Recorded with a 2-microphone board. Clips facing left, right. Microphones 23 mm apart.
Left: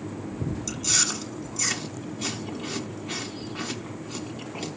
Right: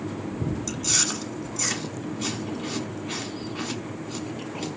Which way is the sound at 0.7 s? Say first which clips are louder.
Left 1 dB; 5° left (ahead or behind).